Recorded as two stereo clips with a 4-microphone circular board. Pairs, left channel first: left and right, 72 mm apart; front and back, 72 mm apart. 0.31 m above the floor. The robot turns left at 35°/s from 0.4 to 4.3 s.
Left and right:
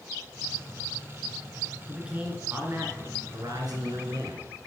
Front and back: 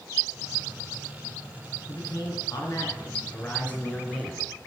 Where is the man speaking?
5° right, 3.5 m; by 4.7 s 90° right, 3.5 m.